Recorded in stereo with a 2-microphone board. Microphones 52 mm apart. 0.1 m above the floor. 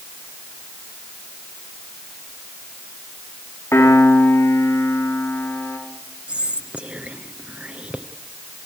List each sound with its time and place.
3.7 s a piano: 65° left (ahead or behind), 7.5 m
6.3 s whispering: 25° right (ahead or behind), 1.3 m